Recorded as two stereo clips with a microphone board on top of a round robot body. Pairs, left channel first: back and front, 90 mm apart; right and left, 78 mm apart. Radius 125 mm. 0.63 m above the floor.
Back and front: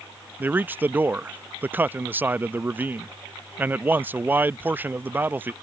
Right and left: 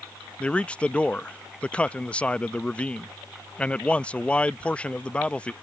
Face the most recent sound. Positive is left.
turn(degrees=-35)